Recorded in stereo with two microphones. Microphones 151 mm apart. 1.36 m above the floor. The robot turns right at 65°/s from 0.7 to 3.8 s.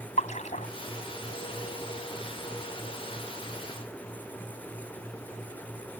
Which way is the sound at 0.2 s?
50° left (ahead or behind).